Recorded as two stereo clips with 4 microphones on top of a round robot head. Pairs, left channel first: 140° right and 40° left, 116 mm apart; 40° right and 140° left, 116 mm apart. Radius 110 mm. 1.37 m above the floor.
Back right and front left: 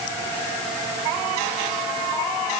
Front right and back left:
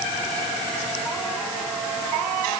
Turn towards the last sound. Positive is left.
No sound to turn to.